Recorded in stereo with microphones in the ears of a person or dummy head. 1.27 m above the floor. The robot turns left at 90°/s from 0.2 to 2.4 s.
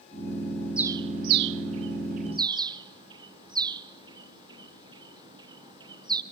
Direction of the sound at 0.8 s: 5° right (ahead or behind).